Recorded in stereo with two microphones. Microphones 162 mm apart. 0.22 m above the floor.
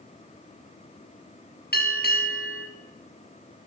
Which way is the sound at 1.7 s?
75° left (ahead or behind).